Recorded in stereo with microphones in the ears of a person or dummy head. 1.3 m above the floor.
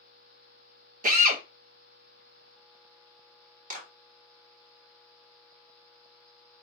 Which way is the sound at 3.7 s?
45° right (ahead or behind).